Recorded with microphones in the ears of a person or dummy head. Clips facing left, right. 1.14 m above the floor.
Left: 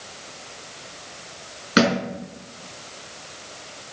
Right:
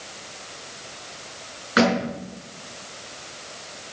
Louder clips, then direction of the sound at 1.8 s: Even; 35° left (ahead or behind).